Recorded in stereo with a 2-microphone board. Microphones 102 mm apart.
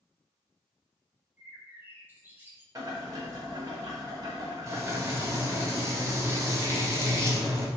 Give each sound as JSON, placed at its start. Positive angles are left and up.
{"t": 1.4, "sound": "a bird", "side_deg": -20, "distance_m": 0.9}
{"t": 2.8, "sound": "boiling", "side_deg": -40, "distance_m": 1.2}
{"t": 4.7, "sound": "frying", "side_deg": -30, "distance_m": 0.9}